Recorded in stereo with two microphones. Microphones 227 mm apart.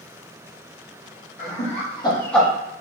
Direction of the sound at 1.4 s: 35° left (ahead or behind).